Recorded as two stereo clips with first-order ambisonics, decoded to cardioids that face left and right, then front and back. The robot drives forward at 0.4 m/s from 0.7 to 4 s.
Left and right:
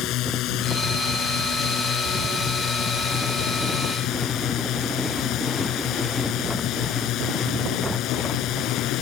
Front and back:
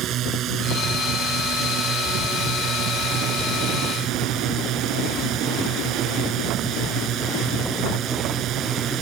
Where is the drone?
130° left; by 9.0 s 135° left.